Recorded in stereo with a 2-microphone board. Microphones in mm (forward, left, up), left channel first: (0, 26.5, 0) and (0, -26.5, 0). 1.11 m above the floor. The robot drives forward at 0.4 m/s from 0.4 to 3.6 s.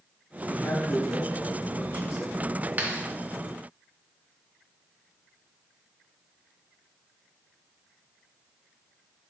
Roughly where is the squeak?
I don't hear a squeak.